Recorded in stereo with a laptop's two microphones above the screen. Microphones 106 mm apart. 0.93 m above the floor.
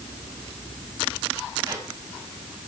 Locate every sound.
1.6 s a squeak: 30° right (ahead or behind), 4.5 m